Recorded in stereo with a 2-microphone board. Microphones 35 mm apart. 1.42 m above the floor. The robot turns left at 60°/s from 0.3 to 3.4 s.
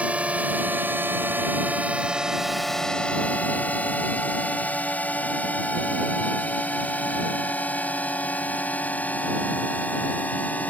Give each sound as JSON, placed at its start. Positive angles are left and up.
{"t": 0.0, "sound": "a drone", "side_deg": -40}